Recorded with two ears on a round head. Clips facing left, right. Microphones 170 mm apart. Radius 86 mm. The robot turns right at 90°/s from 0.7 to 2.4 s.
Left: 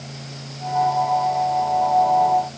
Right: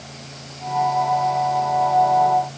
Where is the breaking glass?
I don't hear breaking glass.